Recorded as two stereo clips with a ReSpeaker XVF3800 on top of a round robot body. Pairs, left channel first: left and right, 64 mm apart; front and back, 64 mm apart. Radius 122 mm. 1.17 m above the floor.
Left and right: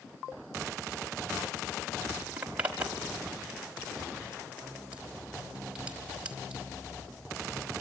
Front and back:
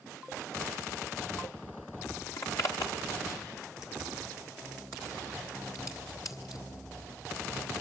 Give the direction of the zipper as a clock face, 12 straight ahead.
1 o'clock.